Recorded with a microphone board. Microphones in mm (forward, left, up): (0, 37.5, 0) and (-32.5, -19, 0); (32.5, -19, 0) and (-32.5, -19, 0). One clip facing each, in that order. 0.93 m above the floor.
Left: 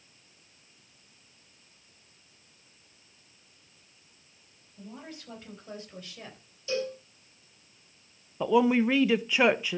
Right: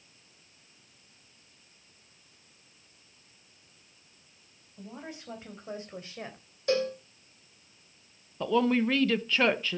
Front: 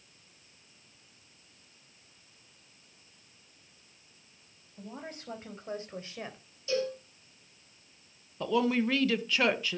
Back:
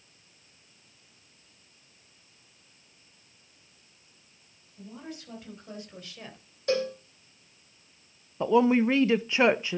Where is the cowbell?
150° right, 3.5 m.